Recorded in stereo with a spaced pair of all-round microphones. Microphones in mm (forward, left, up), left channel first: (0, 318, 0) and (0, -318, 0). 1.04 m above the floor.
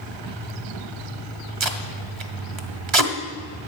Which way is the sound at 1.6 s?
45° right (ahead or behind).